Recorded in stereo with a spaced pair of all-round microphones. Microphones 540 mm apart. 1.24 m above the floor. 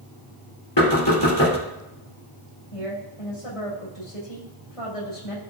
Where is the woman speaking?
85° left, 6 m.